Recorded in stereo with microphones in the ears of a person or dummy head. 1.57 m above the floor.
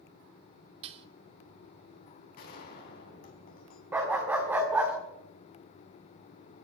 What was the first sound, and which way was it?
Dishes clattering, 35° right (ahead or behind).